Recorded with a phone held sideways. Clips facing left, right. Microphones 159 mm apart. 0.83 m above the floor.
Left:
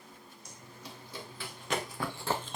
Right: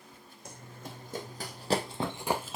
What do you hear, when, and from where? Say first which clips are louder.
0.5 s running footsteps: right 4 dB; 55° right (ahead or behind), 2 m; by 2.6 s centre (ahead or behind), 1.0 m